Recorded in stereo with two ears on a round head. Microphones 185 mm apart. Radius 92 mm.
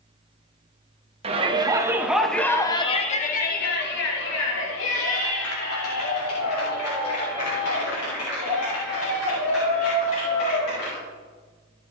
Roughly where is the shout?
Right.